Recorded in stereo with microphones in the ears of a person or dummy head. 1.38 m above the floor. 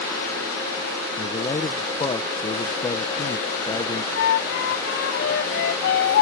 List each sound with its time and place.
1.2 s a man speaking: 25° left (ahead or behind)
4.1 s a flute: 55° left (ahead or behind)